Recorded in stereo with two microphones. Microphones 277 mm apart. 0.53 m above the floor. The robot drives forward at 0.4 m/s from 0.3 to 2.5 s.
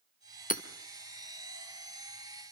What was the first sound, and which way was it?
Hammering, 30° left (ahead or behind).